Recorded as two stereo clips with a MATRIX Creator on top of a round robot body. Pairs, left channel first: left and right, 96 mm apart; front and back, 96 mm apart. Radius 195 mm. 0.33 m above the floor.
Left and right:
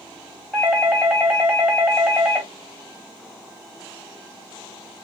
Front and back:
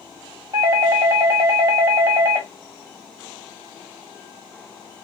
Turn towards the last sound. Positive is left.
turn(degrees=175)